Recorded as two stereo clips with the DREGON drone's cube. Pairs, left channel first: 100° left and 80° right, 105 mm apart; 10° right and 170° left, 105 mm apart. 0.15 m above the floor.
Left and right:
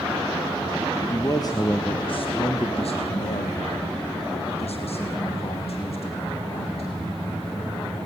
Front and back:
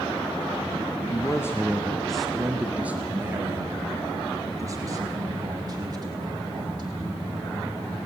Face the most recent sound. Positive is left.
turn(degrees=120)